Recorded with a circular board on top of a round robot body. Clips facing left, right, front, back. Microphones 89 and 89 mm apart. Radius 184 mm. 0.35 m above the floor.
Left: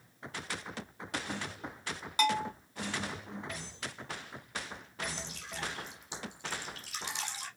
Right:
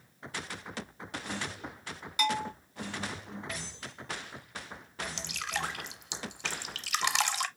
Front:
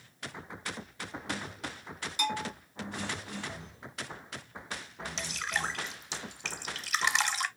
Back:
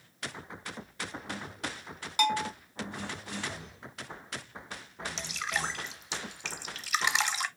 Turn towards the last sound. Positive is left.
turn(degrees=-90)